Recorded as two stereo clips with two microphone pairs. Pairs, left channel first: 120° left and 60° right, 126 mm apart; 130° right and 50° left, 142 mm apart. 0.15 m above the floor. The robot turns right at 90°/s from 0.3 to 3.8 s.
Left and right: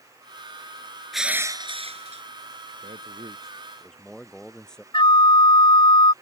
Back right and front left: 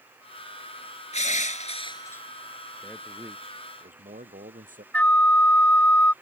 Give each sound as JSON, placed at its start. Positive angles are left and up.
{"t": 1.1, "sound": "crushing", "azimuth_deg": -155}
{"t": 2.8, "sound": "a man speaking", "azimuth_deg": -55}
{"t": 4.9, "sound": "a flute", "azimuth_deg": 155}